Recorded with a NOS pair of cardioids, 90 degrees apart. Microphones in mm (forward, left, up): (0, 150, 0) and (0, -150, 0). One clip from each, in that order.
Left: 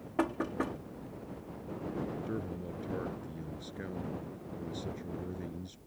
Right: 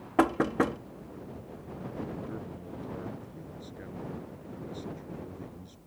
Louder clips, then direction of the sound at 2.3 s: Left 2 dB; 35° left.